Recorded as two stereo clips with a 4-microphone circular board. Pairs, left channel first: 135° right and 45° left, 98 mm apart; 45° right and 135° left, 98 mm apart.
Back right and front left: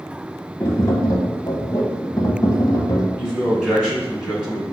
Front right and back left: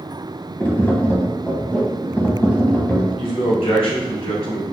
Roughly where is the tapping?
Right.